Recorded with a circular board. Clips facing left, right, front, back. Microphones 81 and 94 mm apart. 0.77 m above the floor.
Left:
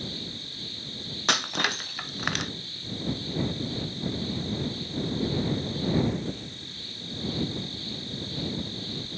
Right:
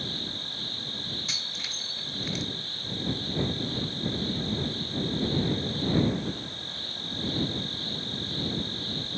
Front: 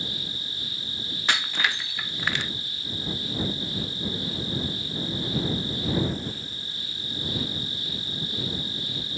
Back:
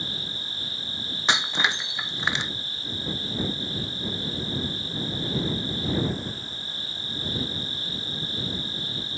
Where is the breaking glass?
110° left.